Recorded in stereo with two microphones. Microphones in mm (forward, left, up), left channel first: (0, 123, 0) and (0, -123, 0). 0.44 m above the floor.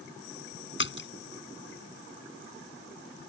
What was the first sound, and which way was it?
A splash, 50° left (ahead or behind).